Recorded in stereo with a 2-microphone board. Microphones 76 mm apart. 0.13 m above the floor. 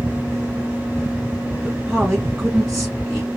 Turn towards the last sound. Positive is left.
turn(degrees=-5)  # may be behind; listen again after turning